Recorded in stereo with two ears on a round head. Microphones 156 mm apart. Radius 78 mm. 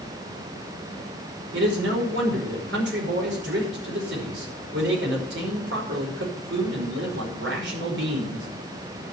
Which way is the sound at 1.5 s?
80° right.